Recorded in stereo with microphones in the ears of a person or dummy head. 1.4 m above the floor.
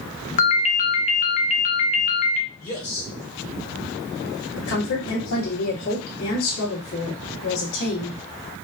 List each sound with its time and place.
0.4 s a ringtone: 40° left (ahead or behind), 0.6 m
2.6 s a man speaking: 25° left (ahead or behind), 1.2 m
4.6 s a woman speaking: 85° left, 1.5 m